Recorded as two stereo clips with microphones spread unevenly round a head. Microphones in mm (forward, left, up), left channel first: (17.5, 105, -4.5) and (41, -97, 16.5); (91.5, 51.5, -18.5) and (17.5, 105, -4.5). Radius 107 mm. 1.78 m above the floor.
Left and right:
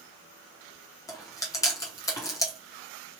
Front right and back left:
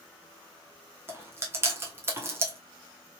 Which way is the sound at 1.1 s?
170° left.